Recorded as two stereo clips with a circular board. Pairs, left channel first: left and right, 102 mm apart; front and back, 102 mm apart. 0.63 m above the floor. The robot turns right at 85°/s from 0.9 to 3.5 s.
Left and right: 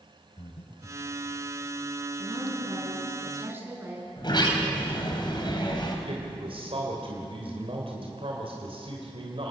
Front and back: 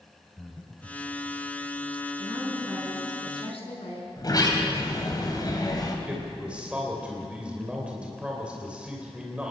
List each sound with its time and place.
0.4 s breathing: 85° left, 1.5 m; by 1.1 s 95° left, 1.5 m
2.2 s a woman speaking: 135° right, 5.5 m; by 4.1 s 20° right, 5.5 m
4.2 s a sliding door: 50° left, 3 m
6.1 s a man speaking: 100° right, 3 m